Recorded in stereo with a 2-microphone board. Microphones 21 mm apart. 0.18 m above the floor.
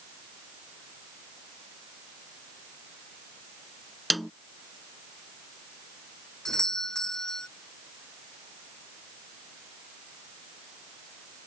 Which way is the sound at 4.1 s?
Centre (ahead or behind).